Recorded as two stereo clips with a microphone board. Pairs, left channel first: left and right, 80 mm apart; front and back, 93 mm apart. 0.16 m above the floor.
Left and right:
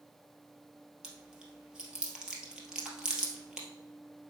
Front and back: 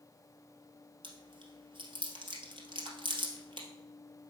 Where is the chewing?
170° right, 1.7 m.